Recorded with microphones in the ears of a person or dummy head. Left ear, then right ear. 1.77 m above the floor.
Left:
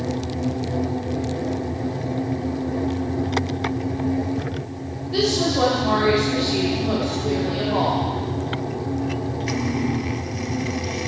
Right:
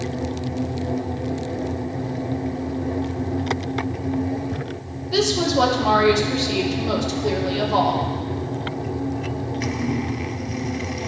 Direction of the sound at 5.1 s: 80° right.